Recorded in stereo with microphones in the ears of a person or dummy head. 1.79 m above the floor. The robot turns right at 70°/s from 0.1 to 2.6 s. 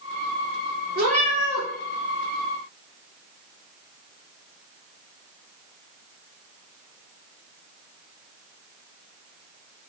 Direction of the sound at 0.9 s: 60° right.